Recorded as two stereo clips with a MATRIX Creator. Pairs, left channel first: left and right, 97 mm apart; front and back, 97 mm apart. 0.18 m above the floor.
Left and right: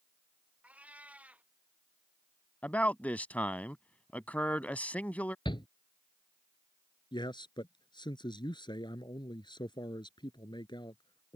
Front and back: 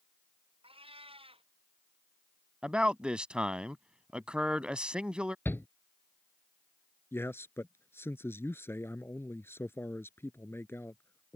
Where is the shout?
65° left.